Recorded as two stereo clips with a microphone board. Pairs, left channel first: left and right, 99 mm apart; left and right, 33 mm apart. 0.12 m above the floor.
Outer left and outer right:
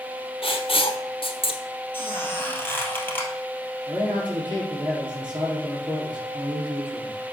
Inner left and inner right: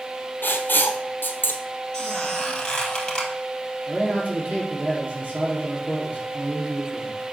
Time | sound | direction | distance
0.4 | writing | 70° left (ahead or behind) | 1.0 m
1.9 | a squeak | 20° left (ahead or behind) | 1.8 m
3.9 | a man speaking | 50° right (ahead or behind) | 3.5 m